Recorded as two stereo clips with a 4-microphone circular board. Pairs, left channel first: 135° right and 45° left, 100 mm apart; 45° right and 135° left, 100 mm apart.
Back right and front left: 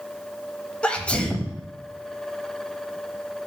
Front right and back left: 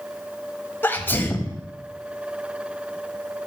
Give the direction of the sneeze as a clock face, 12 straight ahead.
2 o'clock.